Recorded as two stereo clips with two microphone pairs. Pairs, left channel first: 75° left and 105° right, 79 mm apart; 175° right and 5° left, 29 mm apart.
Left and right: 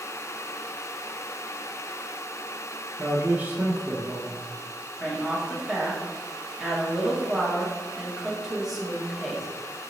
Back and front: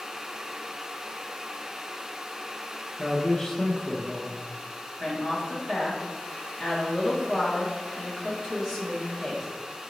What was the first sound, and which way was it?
A man speaking, 115° right.